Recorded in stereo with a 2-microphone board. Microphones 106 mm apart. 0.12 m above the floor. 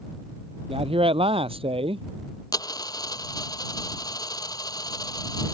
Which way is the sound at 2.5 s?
35° left (ahead or behind).